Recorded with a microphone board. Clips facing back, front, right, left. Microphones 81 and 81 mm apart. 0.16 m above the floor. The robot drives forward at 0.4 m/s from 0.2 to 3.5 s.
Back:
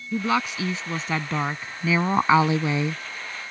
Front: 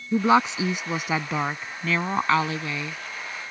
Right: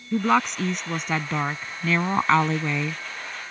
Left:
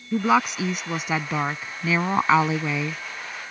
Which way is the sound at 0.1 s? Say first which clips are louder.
Front 5 dB, left 1 dB; 10° left.